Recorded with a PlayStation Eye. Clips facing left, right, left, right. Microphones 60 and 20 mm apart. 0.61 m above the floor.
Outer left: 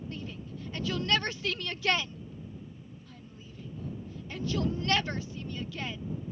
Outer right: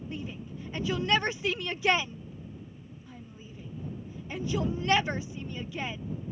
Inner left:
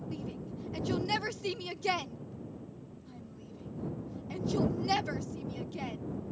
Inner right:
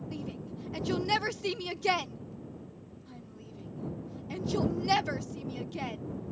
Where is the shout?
15° right (ahead or behind).